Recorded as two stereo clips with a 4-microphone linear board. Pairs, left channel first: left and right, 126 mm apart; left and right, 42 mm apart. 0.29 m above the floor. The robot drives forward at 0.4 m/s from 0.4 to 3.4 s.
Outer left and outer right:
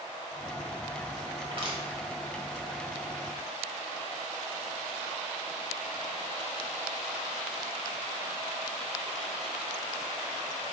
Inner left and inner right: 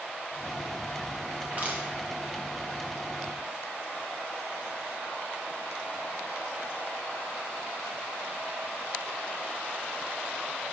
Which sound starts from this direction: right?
Crushing, at 1.4 s.